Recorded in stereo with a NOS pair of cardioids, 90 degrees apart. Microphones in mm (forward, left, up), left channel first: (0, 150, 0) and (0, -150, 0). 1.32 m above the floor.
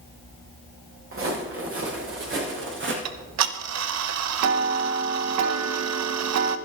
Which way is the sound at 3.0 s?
60° right.